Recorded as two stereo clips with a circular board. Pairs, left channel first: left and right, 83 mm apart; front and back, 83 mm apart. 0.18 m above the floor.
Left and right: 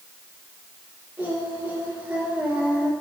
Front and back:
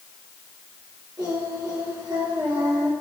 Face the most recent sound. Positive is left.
turn(degrees=-160)